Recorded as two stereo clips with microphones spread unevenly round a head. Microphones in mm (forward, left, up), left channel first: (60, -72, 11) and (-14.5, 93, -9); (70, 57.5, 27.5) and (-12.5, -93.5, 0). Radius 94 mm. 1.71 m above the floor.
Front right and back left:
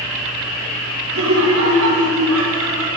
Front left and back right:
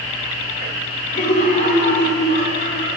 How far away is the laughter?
About 6.5 m.